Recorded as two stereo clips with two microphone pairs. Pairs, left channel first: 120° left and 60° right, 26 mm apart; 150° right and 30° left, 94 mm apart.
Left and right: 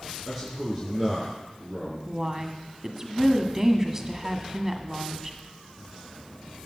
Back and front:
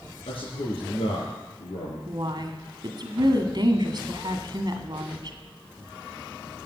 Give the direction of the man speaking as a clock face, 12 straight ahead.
5 o'clock.